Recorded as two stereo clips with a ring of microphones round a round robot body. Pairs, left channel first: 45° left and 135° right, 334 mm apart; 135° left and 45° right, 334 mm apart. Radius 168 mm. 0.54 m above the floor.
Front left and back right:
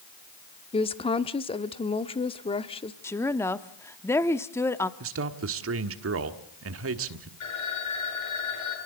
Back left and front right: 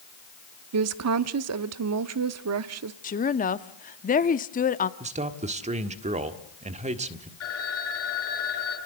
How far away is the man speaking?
About 1.5 m.